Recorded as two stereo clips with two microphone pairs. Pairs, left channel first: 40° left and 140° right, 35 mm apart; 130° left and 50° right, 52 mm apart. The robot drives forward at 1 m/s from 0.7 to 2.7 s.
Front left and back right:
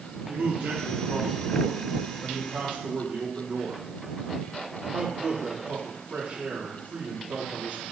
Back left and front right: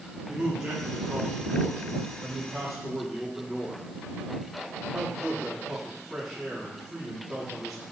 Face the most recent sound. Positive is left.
turn(degrees=-140)